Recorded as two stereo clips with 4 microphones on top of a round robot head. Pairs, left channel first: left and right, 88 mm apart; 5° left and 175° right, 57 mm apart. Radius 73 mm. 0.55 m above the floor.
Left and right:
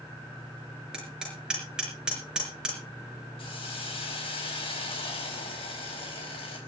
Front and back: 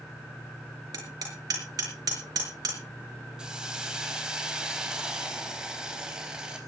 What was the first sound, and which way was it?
Hammering, 170° right.